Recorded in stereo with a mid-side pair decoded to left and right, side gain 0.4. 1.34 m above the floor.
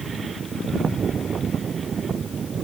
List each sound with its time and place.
Only background noise.